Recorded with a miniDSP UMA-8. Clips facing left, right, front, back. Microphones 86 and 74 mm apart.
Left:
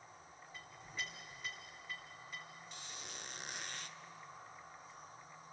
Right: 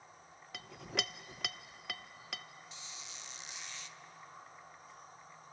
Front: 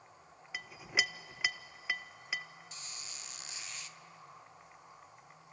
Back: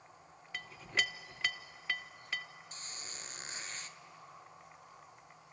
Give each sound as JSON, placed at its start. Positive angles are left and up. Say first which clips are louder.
{"t": 0.5, "sound": "a clink", "louder": "right 7 dB, front 1 dB", "azimuth_deg": -80, "distance_m": 0.6}
{"t": 2.7, "sound": "a squeak", "louder": "left 1 dB, back 1 dB", "azimuth_deg": 130, "distance_m": 0.6}